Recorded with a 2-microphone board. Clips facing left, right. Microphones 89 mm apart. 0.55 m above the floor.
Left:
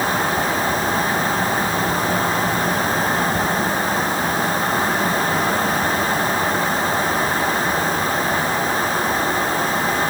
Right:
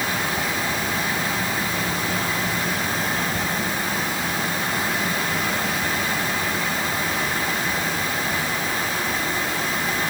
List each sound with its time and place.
Only background noise.